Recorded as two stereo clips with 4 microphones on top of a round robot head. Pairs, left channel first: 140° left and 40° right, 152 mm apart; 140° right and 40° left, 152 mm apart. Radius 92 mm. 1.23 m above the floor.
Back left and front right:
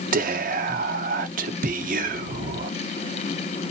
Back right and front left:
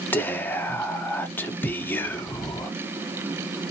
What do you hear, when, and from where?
0.1 s whispering: 65° right, 0.8 m